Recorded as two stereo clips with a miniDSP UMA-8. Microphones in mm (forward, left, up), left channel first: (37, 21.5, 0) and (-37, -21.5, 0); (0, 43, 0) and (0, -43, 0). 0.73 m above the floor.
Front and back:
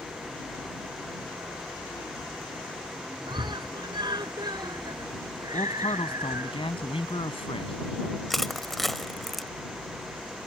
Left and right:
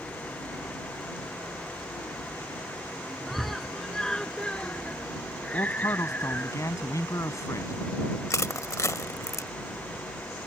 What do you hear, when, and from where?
3.3 s a scream: straight behind; by 6.5 s 160° left
5.5 s a man speaking: 35° left
8.3 s crushing: 120° left